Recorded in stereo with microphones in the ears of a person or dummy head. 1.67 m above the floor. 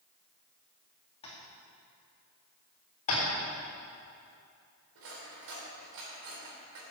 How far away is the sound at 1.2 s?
About 2.5 m.